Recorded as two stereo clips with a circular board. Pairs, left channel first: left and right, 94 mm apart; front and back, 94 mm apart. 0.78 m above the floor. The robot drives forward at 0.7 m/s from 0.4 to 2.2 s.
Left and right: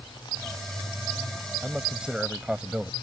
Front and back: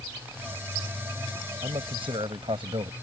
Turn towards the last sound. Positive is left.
turn(degrees=-170)